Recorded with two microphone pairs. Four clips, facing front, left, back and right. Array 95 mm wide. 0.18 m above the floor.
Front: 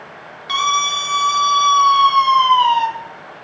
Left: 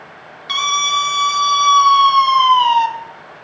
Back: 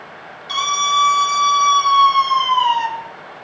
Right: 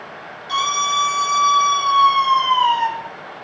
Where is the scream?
55° left, 3 m; by 2.9 s 65° left, 1.7 m.